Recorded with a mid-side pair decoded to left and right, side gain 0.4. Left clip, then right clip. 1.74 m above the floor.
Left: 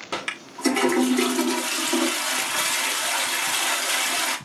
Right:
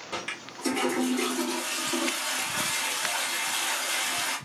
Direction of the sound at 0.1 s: 65° left.